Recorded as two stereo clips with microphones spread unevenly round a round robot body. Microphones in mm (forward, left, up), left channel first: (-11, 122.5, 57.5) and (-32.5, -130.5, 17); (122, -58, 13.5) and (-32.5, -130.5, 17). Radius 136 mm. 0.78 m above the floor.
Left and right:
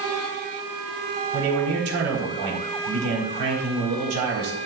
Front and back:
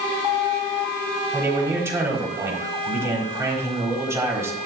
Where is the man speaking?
80° right, 4 m.